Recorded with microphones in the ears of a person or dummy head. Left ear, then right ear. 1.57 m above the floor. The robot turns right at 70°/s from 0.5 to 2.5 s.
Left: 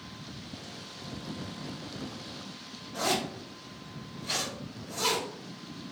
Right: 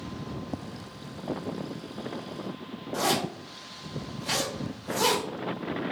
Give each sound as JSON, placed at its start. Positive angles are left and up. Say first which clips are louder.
{"t": 2.9, "sound": "a zipper", "louder": "right 3 dB", "side_deg": -50, "distance_m": 1.7}